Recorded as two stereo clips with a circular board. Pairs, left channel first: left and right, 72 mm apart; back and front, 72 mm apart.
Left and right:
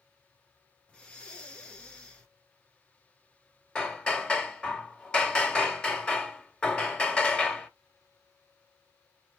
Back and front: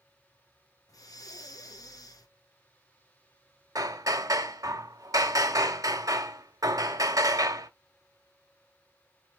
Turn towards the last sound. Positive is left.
turn(degrees=15)